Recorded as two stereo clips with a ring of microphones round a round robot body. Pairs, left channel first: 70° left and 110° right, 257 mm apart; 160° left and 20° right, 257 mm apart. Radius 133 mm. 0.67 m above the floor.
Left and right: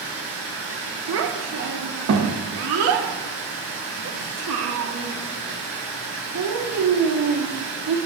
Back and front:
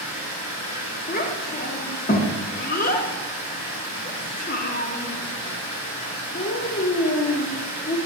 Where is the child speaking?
145° right, 0.8 m.